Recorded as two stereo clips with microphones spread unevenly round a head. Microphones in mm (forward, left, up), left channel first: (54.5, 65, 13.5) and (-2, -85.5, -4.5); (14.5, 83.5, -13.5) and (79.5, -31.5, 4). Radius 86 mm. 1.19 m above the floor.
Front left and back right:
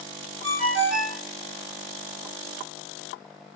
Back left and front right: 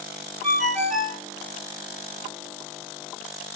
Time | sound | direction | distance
0.4 | a ringtone | 150° right | 1.3 m